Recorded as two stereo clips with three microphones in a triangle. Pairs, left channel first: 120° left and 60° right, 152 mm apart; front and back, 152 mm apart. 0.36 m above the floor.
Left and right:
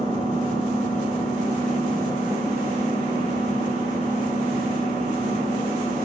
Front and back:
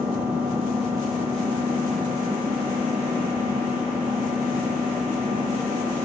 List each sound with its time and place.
0.0 s an engine running: 100° right, 6 m